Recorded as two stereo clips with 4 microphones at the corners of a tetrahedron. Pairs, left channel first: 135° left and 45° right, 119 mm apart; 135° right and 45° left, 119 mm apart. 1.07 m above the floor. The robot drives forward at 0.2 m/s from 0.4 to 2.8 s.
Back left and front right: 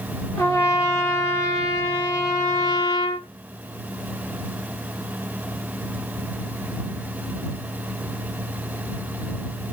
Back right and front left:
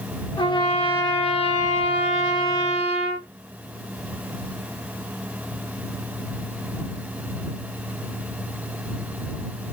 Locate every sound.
0.4 s a trumpet: 165° right, 0.7 m; by 3.3 s 170° right, 1.1 m